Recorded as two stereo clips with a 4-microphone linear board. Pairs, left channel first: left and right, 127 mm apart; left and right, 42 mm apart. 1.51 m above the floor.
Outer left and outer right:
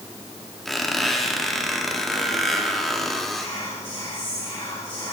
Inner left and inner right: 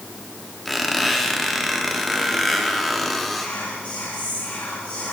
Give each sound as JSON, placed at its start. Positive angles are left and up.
{"t": 0.7, "sound": "a squeak", "side_deg": 0, "distance_m": 1.5}
{"t": 3.4, "sound": "whispering", "side_deg": 40, "distance_m": 2.5}